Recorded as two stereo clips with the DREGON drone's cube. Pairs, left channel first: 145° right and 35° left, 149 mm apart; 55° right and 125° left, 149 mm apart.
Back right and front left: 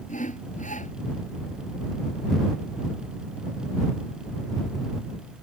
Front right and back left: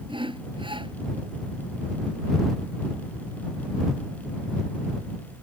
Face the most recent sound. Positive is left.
turn(degrees=180)